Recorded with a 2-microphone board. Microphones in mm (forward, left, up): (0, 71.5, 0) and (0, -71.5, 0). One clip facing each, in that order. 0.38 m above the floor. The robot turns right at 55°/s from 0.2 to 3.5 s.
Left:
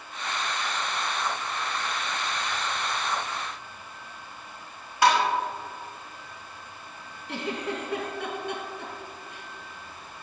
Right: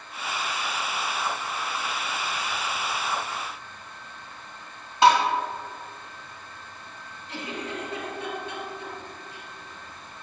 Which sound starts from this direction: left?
A giggle, at 7.3 s.